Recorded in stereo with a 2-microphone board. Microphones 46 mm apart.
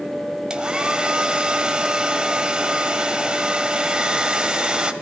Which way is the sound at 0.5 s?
20° right (ahead or behind).